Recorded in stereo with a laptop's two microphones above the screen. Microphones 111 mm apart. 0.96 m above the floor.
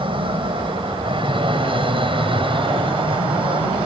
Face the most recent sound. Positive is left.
turn(degrees=-50)  # may be behind; listen again after turning